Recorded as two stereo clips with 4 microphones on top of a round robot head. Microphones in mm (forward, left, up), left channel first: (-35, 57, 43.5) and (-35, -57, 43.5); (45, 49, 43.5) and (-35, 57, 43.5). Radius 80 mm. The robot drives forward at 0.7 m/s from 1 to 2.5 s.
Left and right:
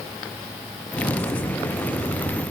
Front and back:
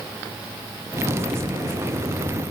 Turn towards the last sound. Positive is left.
No sound to turn to.